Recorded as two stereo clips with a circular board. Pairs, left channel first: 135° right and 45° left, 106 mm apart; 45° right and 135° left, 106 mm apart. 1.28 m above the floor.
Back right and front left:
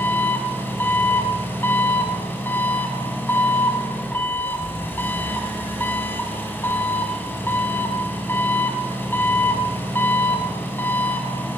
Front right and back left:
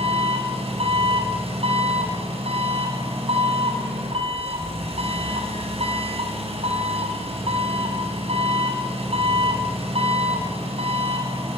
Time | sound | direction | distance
0.0 | an engine running | 155° left | 5.5 m